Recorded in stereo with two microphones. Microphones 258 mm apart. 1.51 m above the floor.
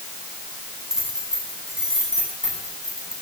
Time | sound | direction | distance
0.9 | keys jangling | centre (ahead or behind) | 10 m